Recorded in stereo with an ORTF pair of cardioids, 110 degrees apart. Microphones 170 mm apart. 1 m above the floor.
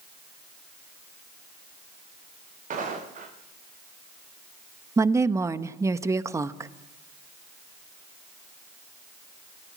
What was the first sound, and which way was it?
Footsteps, 50° right.